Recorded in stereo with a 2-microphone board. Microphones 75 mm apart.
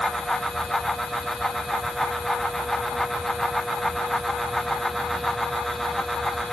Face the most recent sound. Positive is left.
No sound to turn to.